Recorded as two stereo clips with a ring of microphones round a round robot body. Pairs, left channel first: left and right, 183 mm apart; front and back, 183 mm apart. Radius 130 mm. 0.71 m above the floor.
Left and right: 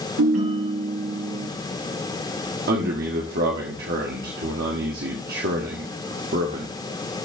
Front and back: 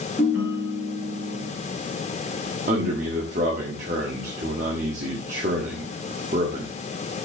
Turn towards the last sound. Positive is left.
turn(degrees=-125)